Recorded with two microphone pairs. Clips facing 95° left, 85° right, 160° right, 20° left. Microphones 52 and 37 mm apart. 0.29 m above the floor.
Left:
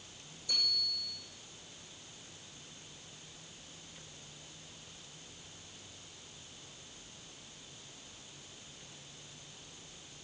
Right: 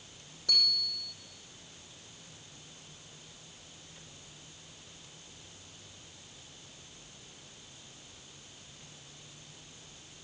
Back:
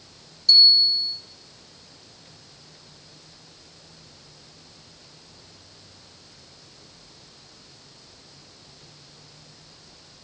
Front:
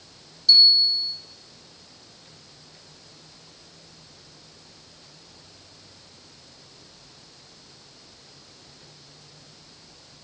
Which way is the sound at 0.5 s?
70° right.